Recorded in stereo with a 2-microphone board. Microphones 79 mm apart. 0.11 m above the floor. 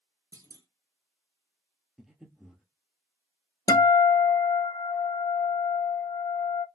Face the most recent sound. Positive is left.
turn(degrees=55)  # may be behind; listen again after turning